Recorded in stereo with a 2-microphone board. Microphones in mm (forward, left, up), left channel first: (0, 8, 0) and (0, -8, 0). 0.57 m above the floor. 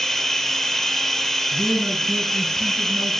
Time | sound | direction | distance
0.0 | running water | 10° left (ahead or behind) | 8 m
1.5 | a man speaking | 25° left (ahead or behind) | 6.5 m